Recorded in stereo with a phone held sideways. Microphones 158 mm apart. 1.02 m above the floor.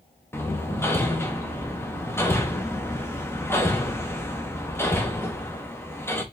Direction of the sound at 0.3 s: 15° left (ahead or behind).